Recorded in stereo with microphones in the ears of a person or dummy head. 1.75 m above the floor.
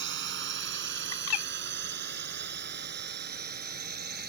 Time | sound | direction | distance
0.0 | a drone | 60° right (ahead or behind) | ?
1.1 | a bird | 80° left | ?